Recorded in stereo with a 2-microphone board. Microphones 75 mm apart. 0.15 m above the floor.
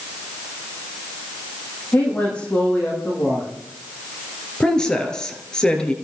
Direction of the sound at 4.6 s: 10° left (ahead or behind).